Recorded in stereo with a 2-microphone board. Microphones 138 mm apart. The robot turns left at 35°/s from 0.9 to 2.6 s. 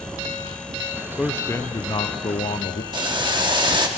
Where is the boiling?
35° right (ahead or behind), 1.3 m.